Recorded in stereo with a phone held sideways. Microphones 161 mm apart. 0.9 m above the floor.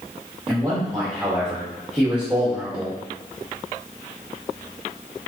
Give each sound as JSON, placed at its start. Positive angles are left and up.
{"t": 0.5, "sound": "a man speaking", "side_deg": -5, "distance_m": 1.2}